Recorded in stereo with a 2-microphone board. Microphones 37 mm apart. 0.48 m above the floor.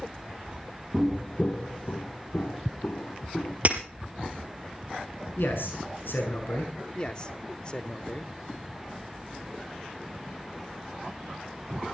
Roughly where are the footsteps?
Centre.